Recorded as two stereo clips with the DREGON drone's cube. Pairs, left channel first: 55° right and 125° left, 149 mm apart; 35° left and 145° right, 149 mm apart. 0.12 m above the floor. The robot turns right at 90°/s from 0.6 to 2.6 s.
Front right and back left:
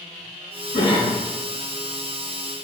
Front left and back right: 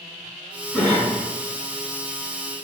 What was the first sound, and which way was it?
A cough, 65° right.